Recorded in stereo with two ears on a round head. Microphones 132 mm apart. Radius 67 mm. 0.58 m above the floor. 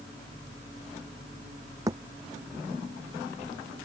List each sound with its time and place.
1.9 s a thud: 25° right (ahead or behind)